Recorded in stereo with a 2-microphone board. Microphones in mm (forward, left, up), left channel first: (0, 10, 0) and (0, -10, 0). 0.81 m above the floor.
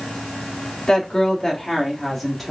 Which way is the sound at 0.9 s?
45° left (ahead or behind).